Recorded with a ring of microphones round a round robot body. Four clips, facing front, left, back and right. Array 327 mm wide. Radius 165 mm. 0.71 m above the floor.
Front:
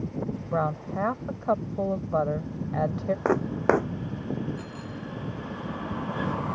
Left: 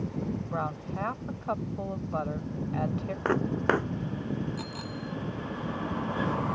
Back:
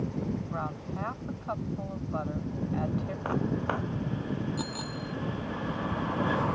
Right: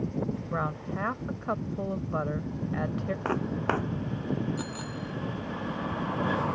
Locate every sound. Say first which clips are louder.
0.5 s a woman speaking: right 1 dB, front 8 dB; 15° right
3.2 s footsteps: left 4 dB, front 7 dB; 15° left
4.6 s a bicycle bell: right 1 dB, back 2 dB; 160° right